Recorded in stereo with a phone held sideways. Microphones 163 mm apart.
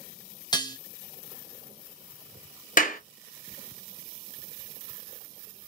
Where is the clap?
55° left (ahead or behind), 1.4 m.